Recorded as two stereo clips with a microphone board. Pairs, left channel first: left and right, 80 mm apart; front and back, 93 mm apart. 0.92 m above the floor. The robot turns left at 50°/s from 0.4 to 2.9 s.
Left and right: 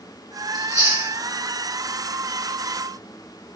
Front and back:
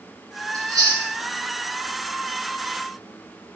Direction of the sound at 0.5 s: 125° right.